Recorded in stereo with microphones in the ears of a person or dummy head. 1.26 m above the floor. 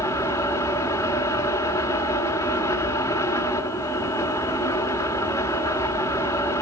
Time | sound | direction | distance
0.0 | a fan | 15° left (ahead or behind) | 0.9 m